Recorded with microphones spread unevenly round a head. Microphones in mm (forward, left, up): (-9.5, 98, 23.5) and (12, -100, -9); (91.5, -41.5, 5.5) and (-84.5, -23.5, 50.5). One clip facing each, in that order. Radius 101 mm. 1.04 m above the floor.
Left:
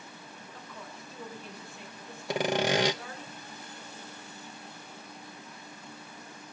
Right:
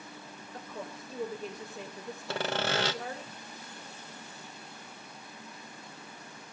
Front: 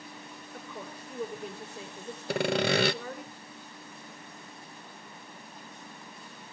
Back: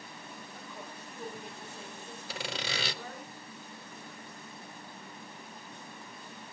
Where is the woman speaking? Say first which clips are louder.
Right 7 dB, front 7 dB; 30° right, 4 m.